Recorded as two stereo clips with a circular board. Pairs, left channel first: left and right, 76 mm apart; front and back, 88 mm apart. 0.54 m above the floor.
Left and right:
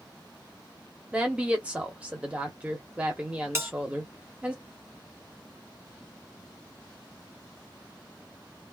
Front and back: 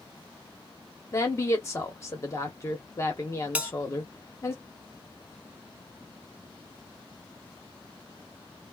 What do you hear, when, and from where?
1.1 s a woman speaking: 25° right, 1.0 m
3.5 s a bell: 115° right, 0.7 m